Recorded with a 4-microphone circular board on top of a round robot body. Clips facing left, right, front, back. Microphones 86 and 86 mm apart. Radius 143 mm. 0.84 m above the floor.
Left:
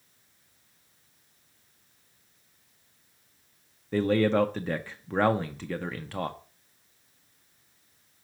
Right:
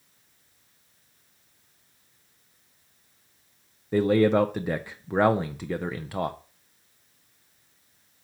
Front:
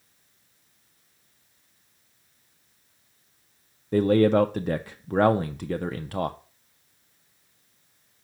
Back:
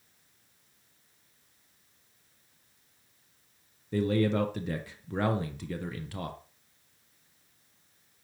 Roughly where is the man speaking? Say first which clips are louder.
Right 3 dB, front 8 dB; ahead.